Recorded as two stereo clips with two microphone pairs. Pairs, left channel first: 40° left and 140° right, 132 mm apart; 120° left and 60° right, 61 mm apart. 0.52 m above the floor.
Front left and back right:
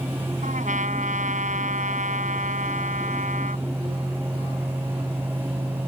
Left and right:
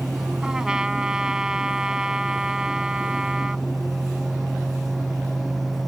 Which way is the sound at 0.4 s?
140° right.